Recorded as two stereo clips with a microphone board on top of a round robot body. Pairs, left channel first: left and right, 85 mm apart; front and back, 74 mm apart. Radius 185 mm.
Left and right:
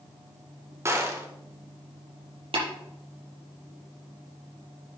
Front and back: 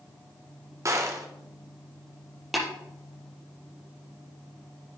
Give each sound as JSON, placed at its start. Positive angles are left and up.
{"t": 0.8, "sound": "a gunshot", "azimuth_deg": -145, "distance_m": 2.0}
{"t": 2.5, "sound": "tapping", "azimuth_deg": -95, "distance_m": 5.5}